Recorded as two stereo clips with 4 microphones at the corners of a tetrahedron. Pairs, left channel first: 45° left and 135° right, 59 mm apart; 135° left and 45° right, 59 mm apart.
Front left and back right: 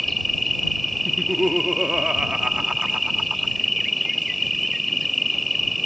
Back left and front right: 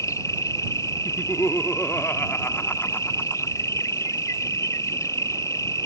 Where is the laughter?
155° left.